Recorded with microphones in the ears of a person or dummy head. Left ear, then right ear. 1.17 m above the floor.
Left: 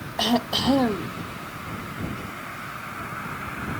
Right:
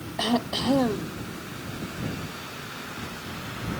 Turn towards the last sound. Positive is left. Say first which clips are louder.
# left 3 dB
turn(degrees=15)  # may be behind; listen again after turning